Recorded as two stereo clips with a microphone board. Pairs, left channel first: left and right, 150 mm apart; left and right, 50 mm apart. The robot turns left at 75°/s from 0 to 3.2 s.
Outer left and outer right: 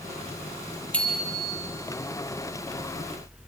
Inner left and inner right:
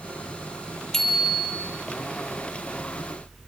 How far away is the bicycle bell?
About 3 m.